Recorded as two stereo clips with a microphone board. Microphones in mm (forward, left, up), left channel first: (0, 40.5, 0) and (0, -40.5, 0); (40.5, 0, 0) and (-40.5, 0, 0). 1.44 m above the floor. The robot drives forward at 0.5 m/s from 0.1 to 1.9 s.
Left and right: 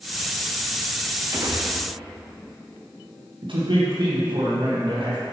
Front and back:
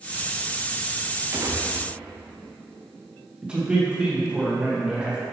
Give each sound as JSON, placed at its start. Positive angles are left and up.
{"t": 1.3, "sound": "a gunshot", "azimuth_deg": -135, "distance_m": 1.2}
{"t": 3.4, "sound": "a man speaking", "azimuth_deg": -100, "distance_m": 1.9}